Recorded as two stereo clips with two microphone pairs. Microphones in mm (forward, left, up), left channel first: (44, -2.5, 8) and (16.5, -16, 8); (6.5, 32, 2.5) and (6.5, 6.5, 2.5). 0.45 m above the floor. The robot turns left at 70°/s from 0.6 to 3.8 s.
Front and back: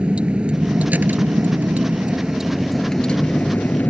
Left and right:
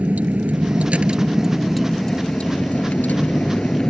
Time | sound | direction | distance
0.0 | a vehicle | 100° right | ?